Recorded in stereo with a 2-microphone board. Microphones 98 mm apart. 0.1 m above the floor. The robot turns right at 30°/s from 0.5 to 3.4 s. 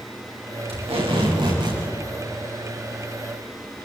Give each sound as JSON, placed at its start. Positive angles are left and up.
{"t": 0.7, "sound": "tape being pulled", "azimuth_deg": -75, "distance_m": 9.5}